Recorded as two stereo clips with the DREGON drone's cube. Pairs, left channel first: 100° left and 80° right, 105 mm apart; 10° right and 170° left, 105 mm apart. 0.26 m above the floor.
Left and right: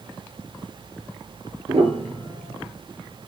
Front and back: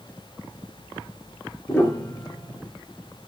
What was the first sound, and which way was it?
A piano, 80° right.